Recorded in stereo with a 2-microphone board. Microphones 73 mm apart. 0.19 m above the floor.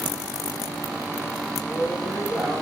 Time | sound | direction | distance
1.6 | a woman speaking | 45° right (ahead or behind) | 5 m